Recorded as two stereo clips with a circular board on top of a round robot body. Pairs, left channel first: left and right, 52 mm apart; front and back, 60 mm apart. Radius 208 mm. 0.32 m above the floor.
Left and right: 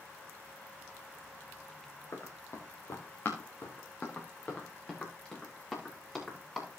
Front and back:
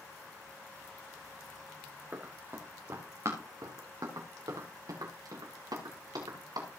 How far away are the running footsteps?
About 4 m.